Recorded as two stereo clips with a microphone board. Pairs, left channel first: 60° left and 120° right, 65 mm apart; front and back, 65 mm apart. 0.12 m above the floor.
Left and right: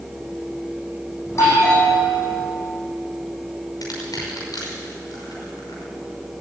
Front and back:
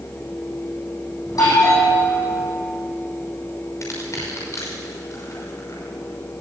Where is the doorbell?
20° left, 8 m.